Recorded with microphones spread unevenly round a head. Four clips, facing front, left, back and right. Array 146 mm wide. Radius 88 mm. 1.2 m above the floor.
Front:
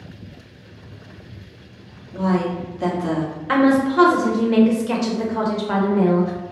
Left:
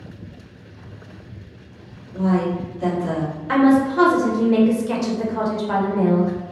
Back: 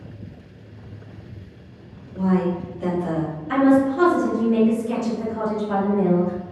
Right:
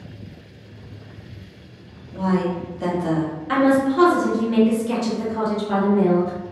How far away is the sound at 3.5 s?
About 1.1 m.